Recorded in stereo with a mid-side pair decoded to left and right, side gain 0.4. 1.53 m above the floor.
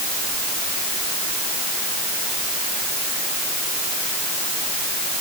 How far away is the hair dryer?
I don't hear a hair dryer.